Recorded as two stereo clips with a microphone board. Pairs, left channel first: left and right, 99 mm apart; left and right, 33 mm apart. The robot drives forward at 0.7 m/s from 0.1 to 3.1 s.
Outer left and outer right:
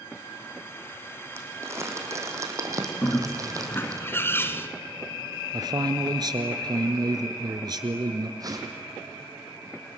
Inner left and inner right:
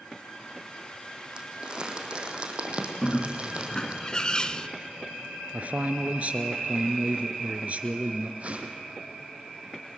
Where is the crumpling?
25° right (ahead or behind), 4.5 m; by 4.0 s 35° right (ahead or behind), 3.5 m.